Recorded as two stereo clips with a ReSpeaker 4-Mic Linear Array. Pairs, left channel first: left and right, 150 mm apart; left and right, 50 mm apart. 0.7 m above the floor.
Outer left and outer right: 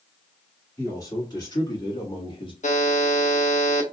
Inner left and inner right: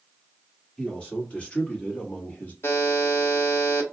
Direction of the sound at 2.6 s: 55° left (ahead or behind).